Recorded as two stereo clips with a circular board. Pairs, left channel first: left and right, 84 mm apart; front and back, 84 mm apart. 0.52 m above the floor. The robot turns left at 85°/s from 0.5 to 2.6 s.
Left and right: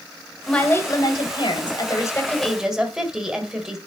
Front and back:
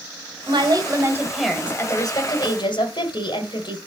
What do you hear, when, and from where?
0.5 s a woman speaking: 170° left, 2 m; by 3.8 s 5° right, 2 m